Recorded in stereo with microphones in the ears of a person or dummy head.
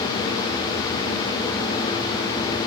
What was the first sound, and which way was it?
Only background noise.